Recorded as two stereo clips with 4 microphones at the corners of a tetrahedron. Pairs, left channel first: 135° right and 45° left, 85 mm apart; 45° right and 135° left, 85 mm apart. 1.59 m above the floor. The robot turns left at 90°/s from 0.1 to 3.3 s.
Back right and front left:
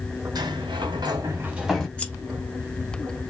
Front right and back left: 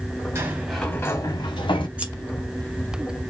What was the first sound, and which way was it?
A sliding door, 80° left.